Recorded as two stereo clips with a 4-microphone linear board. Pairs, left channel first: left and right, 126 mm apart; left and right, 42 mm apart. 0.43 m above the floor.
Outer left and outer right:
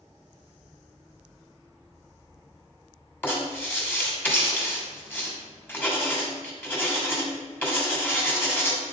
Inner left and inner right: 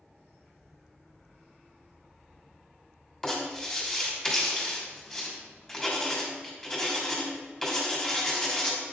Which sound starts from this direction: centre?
Writing, at 3.2 s.